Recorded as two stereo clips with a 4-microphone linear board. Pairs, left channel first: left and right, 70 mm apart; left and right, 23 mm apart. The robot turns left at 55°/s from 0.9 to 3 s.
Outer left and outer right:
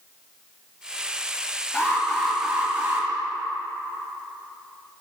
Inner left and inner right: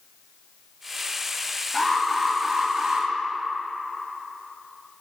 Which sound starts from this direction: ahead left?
An alarm, at 1.7 s.